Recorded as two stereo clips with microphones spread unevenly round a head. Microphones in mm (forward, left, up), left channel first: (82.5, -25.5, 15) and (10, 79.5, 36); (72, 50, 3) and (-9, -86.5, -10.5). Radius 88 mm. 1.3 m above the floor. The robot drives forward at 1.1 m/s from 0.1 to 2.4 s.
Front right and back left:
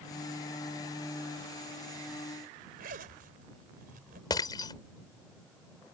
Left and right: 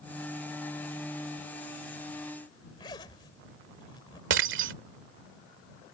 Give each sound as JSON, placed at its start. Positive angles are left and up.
{"t": 2.8, "sound": "a zipper", "azimuth_deg": 125}
{"t": 4.3, "sound": "breaking glass", "azimuth_deg": -130}